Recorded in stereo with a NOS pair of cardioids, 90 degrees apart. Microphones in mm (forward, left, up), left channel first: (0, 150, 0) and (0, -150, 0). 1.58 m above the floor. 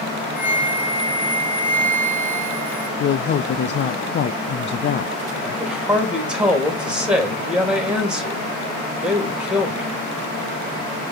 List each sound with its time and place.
0.4 s a flute: 5° right, 2.5 m
3.0 s a woman speaking: 40° left, 0.6 m
5.4 s a man speaking: 5° right, 3.5 m